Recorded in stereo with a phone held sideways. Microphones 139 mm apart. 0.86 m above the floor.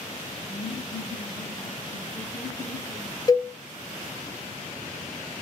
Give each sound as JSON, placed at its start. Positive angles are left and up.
{"t": 0.5, "sound": "laughter", "side_deg": 20, "distance_m": 0.6}
{"t": 3.3, "sound": "a cowbell", "side_deg": 25, "distance_m": 0.6}